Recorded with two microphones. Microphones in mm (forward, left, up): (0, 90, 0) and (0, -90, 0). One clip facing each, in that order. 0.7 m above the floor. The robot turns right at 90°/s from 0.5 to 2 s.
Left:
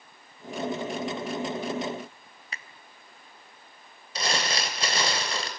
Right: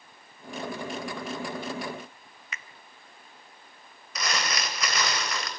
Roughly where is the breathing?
No breathing in this recording.